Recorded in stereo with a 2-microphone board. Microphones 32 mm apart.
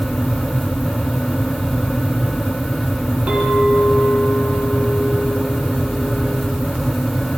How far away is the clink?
About 3.5 m.